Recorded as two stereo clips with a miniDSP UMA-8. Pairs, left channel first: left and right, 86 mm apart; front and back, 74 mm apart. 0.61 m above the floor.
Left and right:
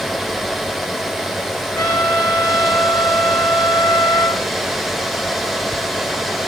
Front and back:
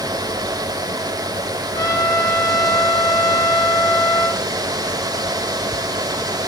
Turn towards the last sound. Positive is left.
turn(degrees=45)